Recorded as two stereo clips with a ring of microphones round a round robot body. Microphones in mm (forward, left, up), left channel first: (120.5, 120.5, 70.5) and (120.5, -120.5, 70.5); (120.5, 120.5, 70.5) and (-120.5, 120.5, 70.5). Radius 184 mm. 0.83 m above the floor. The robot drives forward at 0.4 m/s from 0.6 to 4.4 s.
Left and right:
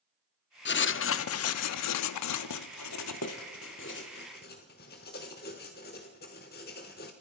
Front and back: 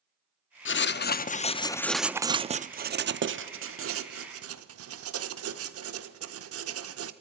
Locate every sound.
0.7 s writing: 45° left, 0.7 m; by 7.1 s 155° left, 1.1 m